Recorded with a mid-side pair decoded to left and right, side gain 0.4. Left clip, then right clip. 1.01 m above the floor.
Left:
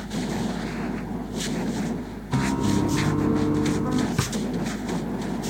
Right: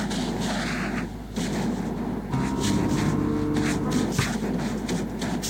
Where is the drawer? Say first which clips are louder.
Right 1 dB; 10° left.